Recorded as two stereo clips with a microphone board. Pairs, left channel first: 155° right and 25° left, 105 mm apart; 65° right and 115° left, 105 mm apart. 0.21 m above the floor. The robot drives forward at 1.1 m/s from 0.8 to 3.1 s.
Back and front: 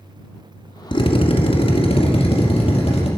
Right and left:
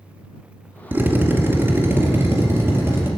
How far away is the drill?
About 1.2 m.